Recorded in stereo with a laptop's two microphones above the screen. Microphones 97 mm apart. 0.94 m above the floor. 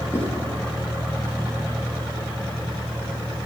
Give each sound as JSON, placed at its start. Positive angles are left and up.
{"t": 0.1, "sound": "writing", "side_deg": 25, "distance_m": 8.5}